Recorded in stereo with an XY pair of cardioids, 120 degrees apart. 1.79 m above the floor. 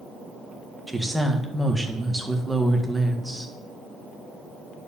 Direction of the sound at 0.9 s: 5° right.